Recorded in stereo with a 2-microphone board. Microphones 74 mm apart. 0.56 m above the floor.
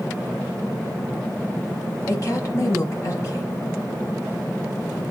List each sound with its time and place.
2.1 s a woman speaking: 45° left (ahead or behind), 3 m